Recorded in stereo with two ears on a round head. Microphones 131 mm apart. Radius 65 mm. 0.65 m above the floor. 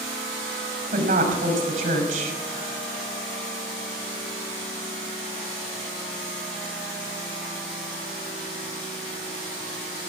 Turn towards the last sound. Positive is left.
turn(degrees=-60)  # may be behind; listen again after turning